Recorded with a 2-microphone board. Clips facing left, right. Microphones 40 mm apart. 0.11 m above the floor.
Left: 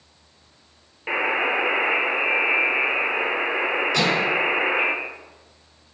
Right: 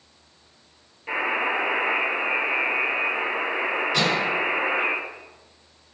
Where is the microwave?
20° right (ahead or behind), 1.6 m.